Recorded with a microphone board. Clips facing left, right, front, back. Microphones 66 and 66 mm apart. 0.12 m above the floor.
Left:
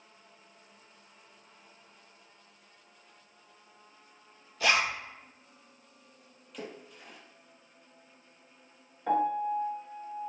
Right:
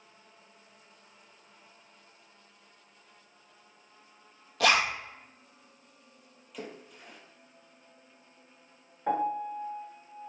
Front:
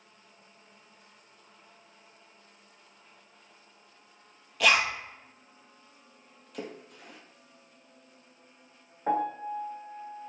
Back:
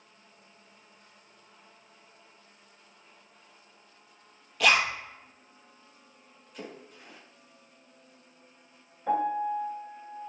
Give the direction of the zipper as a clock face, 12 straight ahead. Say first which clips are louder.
Right 2 dB, even; 3 o'clock.